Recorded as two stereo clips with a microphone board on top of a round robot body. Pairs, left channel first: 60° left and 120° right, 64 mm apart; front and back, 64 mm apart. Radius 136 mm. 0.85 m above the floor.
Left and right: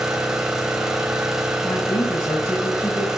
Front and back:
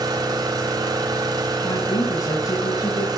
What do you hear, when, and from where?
0.0 s an engine running: 155° left, 2.5 m
1.6 s a woman speaking: 35° left, 5.5 m